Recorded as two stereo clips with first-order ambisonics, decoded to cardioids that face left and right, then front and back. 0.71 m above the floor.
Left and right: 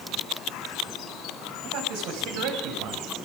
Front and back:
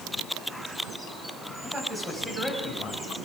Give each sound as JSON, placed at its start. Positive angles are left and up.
{"t": 1.6, "sound": "a man speaking", "azimuth_deg": -105, "distance_m": 5.5}